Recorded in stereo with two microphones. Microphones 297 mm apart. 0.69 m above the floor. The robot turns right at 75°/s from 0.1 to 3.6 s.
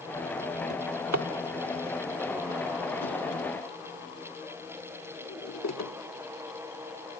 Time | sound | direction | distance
0.7 | a drawer | 75° right (ahead or behind) | 0.9 m